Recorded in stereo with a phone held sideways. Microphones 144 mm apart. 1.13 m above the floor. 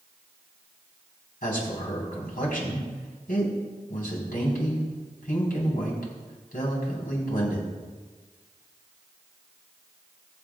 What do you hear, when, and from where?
1.4 s a man speaking: 80° left, 4 m